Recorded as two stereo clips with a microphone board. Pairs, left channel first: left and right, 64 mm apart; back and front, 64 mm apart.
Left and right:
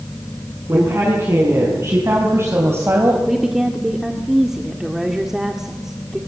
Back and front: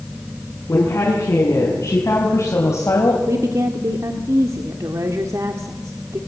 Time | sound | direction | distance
0.7 | a woman speaking | 135° right | 6.5 m
3.3 | a woman speaking | 10° right | 1.7 m